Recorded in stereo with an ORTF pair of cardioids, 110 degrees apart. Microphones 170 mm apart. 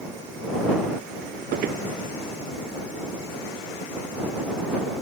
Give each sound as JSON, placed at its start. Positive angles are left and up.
{"t": 1.5, "sound": "footsteps", "azimuth_deg": -65}